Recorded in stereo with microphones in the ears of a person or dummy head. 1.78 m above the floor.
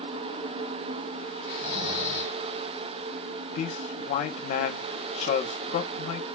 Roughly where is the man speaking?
Left.